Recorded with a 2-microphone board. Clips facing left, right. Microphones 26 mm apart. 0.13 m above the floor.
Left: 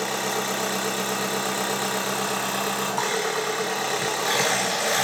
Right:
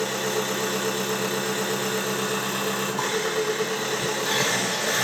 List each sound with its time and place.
0.0 s an engine running: 80° left, 1.6 m